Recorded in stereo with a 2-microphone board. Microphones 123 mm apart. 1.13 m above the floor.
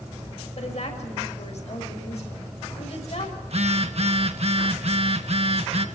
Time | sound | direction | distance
0.6 | a woman speaking | 65° left (ahead or behind) | 6 m
3.4 | a phone buzzing | 60° right (ahead or behind) | 1.4 m